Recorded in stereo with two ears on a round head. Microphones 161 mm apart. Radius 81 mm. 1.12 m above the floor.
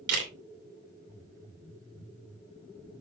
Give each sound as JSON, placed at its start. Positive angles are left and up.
{"t": 0.1, "sound": "a camera shutter", "side_deg": -75, "distance_m": 2.5}